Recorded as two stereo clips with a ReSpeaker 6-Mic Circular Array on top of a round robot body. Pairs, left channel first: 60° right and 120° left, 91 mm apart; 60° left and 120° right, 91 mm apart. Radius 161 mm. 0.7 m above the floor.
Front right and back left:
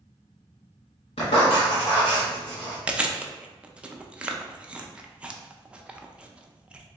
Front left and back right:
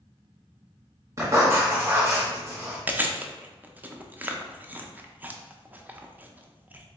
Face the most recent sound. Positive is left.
turn(degrees=-175)